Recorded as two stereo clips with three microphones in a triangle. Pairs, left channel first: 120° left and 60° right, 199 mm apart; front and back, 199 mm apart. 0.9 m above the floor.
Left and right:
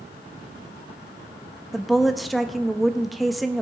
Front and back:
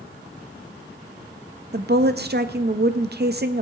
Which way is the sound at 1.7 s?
150° right.